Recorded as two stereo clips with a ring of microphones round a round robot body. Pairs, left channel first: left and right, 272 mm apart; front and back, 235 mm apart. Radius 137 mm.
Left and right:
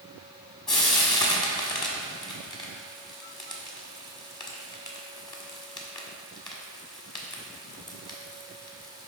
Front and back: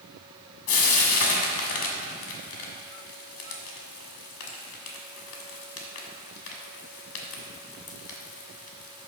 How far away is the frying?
About 1.4 m.